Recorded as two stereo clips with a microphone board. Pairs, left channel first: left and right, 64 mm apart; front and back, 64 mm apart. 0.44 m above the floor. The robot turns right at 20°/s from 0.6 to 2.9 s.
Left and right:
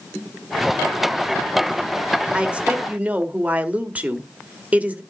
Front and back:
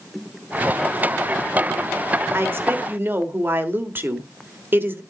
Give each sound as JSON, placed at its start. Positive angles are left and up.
{"t": 2.3, "sound": "a woman speaking", "azimuth_deg": -160, "distance_m": 1.3}